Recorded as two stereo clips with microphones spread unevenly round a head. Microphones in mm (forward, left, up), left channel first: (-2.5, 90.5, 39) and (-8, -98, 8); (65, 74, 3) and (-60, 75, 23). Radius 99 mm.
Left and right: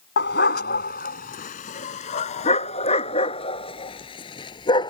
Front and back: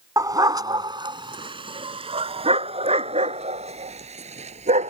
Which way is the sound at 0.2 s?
120° left.